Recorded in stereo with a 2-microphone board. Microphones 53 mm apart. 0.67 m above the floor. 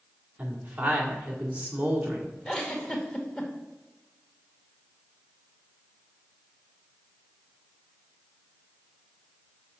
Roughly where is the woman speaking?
Right.